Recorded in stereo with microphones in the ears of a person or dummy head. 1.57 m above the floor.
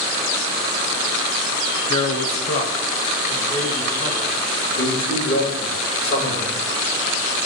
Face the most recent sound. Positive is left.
turn(degrees=40)  # may be behind; listen again after turning